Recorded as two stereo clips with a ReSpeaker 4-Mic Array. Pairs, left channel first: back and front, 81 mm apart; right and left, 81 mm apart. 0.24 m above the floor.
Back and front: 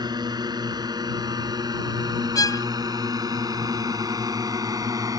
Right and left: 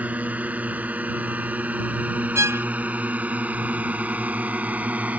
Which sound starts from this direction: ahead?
A drone, at 0.0 s.